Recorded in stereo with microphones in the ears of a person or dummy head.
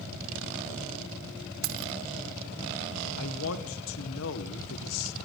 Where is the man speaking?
70° left (ahead or behind), 1.4 m.